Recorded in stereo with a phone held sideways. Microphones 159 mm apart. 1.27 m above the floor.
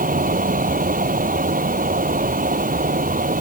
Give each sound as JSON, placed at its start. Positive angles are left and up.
{"t": 0.0, "sound": "a fan", "side_deg": -60}